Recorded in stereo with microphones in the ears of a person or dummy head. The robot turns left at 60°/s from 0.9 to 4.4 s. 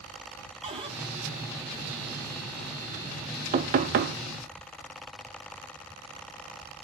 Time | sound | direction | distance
0.6 | a cupboard door | 30° right (ahead or behind) | 2 m
3.5 | knocking | 40° right | 0.7 m